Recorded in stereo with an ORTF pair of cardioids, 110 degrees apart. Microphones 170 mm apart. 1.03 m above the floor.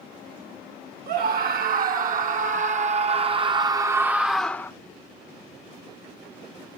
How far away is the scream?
About 2 m.